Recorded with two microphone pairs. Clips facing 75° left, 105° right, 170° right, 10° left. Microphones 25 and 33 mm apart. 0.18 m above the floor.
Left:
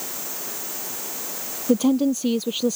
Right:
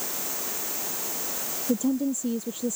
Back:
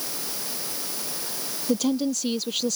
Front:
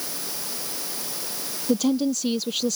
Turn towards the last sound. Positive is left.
turn(degrees=100)